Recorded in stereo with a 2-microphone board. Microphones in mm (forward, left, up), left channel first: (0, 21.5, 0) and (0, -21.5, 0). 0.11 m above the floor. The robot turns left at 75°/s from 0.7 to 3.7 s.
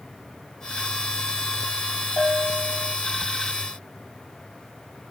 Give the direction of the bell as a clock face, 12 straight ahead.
7 o'clock.